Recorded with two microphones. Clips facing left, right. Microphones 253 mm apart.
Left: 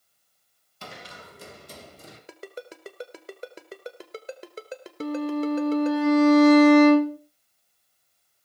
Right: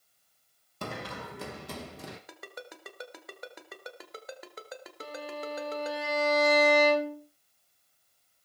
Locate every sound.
0.8 s running footsteps: 60° right (ahead or behind), 1.2 m; by 2.2 s 80° right, 3 m
2.3 s a ringtone: 30° left (ahead or behind), 1.4 m
5.0 s a violin: 60° left (ahead or behind), 1.3 m